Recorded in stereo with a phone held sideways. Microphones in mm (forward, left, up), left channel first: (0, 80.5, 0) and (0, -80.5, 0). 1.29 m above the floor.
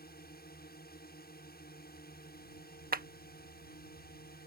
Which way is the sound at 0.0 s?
75° left (ahead or behind).